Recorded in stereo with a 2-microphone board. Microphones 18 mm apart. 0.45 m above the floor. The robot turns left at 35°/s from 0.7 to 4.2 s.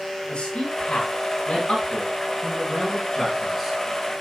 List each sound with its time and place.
0.3 s a man speaking: 75° left (ahead or behind), 5 m; by 3.8 s 10° right (ahead or behind), 5 m